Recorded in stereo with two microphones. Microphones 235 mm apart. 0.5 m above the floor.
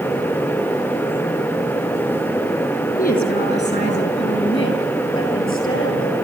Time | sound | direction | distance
3.0 | a woman speaking | 40° left (ahead or behind) | 7 m